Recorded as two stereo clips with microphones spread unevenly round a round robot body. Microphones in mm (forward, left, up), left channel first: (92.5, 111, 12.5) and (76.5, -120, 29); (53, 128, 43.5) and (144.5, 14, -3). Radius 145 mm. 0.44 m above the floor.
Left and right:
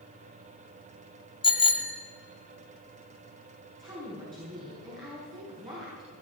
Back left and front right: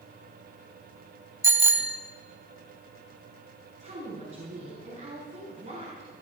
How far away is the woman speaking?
About 6 m.